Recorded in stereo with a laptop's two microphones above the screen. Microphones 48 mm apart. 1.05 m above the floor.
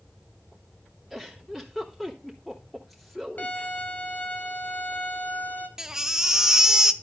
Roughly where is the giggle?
Centre.